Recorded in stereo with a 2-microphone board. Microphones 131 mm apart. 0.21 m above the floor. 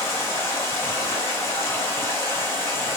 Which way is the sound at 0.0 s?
20° left (ahead or behind).